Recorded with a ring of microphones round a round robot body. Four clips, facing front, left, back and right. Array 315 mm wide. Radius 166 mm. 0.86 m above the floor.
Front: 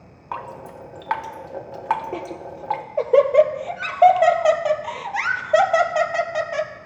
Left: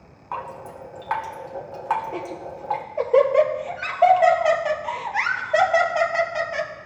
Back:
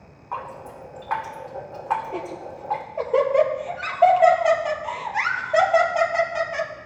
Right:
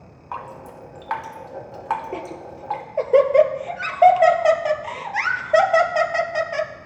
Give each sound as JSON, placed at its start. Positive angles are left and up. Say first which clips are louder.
{"t": 0.3, "sound": "dripping", "louder": "left 1 dB, even", "azimuth_deg": -5, "distance_m": 1.0}
{"t": 2.1, "sound": "laughter", "louder": "even, front 1 dB", "azimuth_deg": -40, "distance_m": 0.8}